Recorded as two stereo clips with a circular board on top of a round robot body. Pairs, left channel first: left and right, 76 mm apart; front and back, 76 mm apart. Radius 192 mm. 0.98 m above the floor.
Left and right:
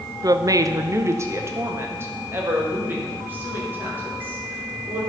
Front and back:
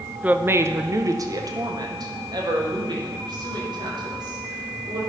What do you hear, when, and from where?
0.2 s a woman speaking: 115° right, 0.7 m; by 5.0 s 160° right, 4 m